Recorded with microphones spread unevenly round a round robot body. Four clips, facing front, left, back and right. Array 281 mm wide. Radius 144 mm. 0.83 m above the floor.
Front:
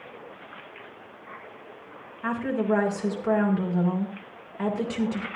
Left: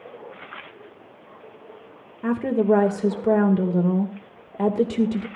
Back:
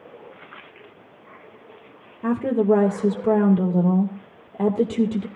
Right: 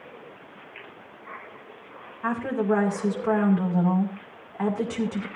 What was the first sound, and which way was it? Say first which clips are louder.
A woman speaking: left 5 dB, back 7 dB; 135° left.